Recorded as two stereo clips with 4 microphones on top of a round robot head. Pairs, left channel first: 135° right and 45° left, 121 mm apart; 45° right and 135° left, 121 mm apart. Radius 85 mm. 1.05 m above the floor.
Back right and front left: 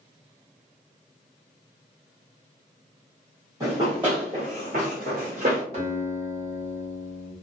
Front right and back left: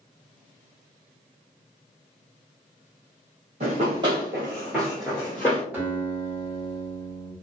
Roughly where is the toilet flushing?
I don't hear a toilet flushing.